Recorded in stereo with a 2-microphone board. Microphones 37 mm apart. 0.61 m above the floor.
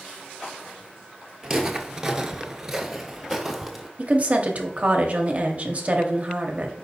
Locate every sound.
1.4 s footsteps: 15° right (ahead or behind), 0.8 m; by 3.9 s 5° right (ahead or behind), 1.2 m
4.0 s a woman speaking: 35° right (ahead or behind), 0.6 m